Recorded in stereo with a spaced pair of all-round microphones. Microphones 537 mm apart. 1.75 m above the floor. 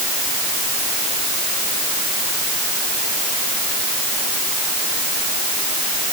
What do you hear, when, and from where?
Only background noise.